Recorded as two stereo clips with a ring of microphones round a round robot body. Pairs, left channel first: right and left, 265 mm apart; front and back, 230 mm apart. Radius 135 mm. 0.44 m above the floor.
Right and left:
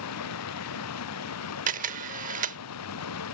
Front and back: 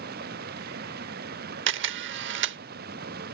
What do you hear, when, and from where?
0.0 s running water: 120° right
1.7 s a camera shutter: 150° left